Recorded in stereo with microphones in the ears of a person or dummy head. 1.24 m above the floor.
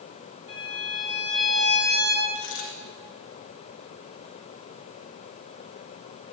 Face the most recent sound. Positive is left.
turn(degrees=35)  # may be behind; listen again after turning